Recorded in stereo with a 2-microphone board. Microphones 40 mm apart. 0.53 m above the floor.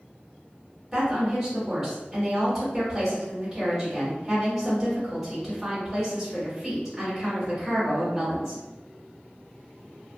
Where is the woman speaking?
5° right (ahead or behind), 1.7 m.